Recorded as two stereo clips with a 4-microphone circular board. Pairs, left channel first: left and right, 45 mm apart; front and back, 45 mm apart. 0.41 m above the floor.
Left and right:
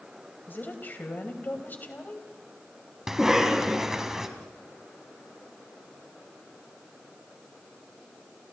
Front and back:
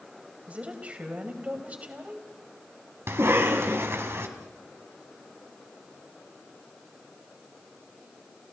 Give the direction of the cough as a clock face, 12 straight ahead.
6 o'clock.